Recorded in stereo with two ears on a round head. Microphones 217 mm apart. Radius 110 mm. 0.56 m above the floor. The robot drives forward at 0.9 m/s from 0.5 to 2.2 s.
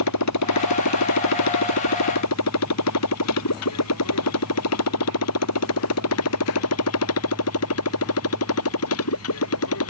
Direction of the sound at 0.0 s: 90° left.